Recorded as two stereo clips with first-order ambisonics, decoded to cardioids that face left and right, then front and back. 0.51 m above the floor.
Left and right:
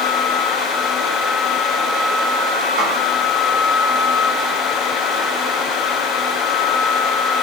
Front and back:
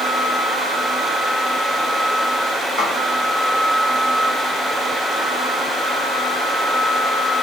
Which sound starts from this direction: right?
A snare drum, at 2.8 s.